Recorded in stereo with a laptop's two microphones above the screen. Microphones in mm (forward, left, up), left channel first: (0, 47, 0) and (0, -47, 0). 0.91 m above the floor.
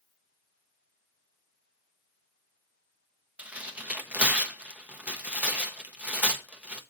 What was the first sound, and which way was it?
Tearing paper, 15° right (ahead or behind).